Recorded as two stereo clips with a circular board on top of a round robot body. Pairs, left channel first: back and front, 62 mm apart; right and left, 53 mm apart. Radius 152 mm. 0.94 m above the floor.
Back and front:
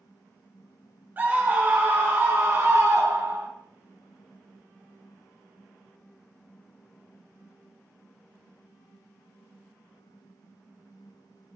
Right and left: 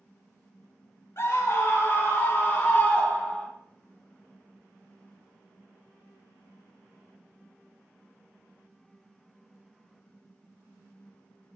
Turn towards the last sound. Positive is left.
turn(degrees=-15)